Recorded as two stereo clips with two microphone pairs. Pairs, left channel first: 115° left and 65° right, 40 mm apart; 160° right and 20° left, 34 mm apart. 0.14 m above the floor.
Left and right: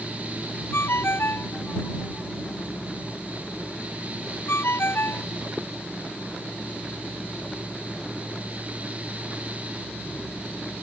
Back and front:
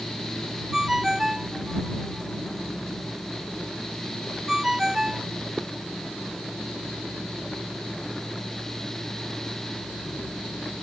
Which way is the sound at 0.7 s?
100° left.